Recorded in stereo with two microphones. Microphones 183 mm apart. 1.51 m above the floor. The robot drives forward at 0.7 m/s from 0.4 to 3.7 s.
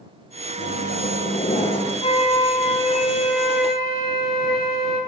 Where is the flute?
30° left (ahead or behind), 2.5 m; by 5.0 s 50° left (ahead or behind), 1.5 m.